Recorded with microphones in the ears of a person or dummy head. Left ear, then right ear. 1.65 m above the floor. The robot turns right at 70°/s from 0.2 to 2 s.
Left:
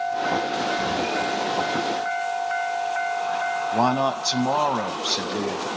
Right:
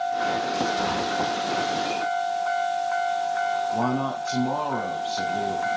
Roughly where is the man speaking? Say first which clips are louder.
Left 4 dB; left.